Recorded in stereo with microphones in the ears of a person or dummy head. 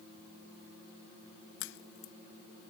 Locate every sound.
1.6 s a crack: 75° left (ahead or behind)